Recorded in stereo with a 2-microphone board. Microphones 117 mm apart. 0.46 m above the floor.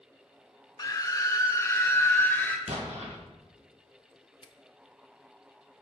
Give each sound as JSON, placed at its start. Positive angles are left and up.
{"t": 0.8, "sound": "a scream", "side_deg": 35, "distance_m": 0.9}
{"t": 2.7, "sound": "an explosion", "side_deg": -75, "distance_m": 2.0}
{"t": 4.4, "sound": "a finger snap", "side_deg": 45, "distance_m": 0.7}